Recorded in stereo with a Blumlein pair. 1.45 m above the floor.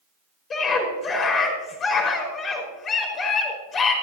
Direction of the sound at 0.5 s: 25° left.